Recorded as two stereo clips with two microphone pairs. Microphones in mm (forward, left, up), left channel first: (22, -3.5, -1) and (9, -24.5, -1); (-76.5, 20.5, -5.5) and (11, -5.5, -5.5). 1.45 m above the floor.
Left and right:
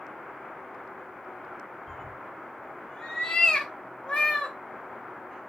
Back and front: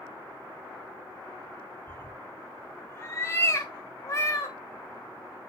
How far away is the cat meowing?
About 1.2 m.